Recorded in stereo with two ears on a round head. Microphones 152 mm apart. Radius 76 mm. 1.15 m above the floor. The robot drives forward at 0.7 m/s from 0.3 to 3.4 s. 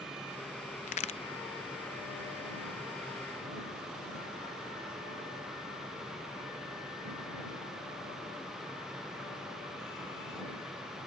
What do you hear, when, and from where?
0.9 s a crack: 45° left (ahead or behind); by 1.2 s 35° left (ahead or behind)